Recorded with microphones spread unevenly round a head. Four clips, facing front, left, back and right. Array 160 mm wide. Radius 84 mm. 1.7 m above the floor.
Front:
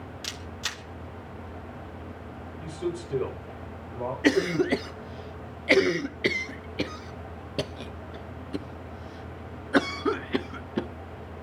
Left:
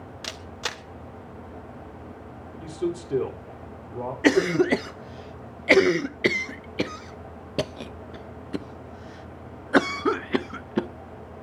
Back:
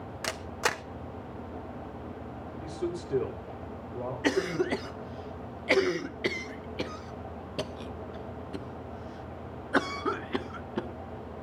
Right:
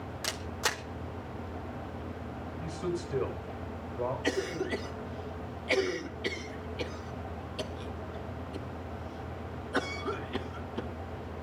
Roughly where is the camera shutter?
Behind.